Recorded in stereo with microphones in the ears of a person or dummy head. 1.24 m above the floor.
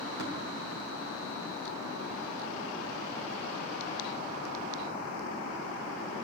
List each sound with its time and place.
0.2 s tapping: 80° right, 3.5 m